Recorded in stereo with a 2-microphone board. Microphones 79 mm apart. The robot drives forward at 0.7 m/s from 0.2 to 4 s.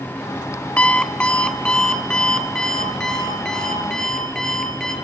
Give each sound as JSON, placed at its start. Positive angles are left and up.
{"t": 0.8, "sound": "an alarm clock", "side_deg": 15, "distance_m": 1.5}